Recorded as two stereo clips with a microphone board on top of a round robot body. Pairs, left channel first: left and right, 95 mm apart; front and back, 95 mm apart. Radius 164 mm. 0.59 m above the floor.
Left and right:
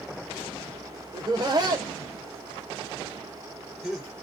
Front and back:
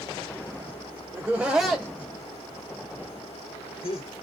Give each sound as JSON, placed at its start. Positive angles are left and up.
{"t": 1.1, "sound": "laughter", "azimuth_deg": -120, "distance_m": 0.8}